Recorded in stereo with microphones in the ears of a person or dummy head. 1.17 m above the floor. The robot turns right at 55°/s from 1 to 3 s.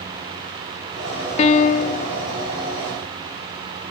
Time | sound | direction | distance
1.4 | a piano | 45° left | 0.5 m